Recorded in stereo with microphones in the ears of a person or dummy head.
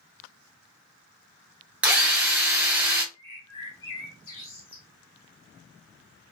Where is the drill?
10° right (ahead or behind), 0.7 m.